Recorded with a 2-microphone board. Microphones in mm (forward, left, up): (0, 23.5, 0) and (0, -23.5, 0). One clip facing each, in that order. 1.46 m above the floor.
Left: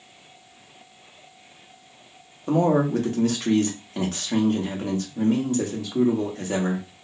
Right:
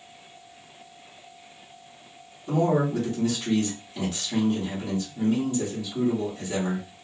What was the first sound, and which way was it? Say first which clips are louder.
A man speaking: left 3 dB; 55° left (ahead or behind).